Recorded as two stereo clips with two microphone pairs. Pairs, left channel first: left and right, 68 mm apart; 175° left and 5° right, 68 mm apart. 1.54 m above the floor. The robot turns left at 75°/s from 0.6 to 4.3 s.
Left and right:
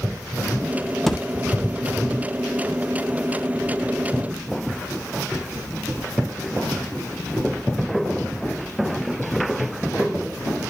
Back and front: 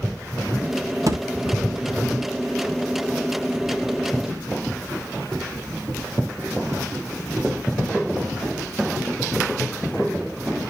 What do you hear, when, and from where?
1.1 s a thud: 5° left, 1.4 m; by 1.2 s 10° right, 1.4 m